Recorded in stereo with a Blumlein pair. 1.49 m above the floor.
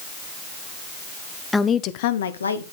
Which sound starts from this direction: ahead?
A woman speaking, at 1.5 s.